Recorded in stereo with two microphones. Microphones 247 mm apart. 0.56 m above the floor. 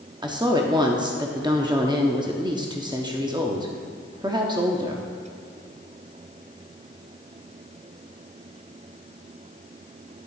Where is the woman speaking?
15° right (ahead or behind), 0.7 m.